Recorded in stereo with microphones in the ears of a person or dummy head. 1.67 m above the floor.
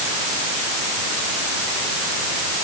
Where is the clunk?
No clunk in this recording.